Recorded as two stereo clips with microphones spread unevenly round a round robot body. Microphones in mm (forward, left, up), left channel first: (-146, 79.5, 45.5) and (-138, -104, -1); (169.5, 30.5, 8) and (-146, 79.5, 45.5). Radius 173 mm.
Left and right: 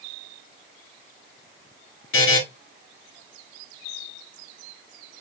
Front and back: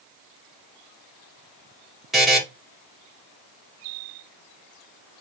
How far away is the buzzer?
About 1.5 m.